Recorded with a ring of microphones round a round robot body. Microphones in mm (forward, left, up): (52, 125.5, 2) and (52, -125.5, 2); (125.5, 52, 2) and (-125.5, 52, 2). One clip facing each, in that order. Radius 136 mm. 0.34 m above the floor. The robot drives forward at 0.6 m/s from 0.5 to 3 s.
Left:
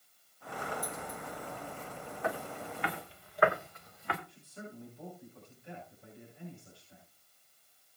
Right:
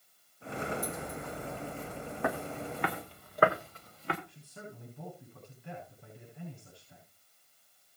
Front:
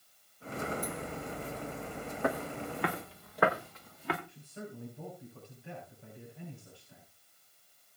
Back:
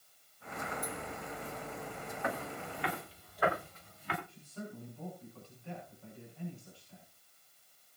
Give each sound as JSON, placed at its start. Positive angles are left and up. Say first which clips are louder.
{"t": 2.2, "sound": "footsteps", "louder": "right 3 dB, front 6 dB", "azimuth_deg": -60, "distance_m": 2.0}
{"t": 4.3, "sound": "a man speaking", "louder": "left 1 dB, even", "azimuth_deg": -75, "distance_m": 7.5}